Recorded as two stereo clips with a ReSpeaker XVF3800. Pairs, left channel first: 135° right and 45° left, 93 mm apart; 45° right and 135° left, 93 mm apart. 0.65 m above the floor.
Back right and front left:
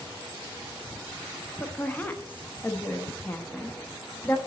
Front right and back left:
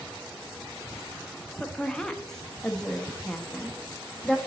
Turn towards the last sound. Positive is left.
turn(degrees=-120)